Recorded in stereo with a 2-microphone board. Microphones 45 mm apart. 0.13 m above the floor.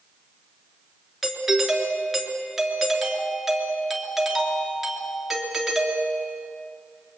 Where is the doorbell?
5° right (ahead or behind), 3 m.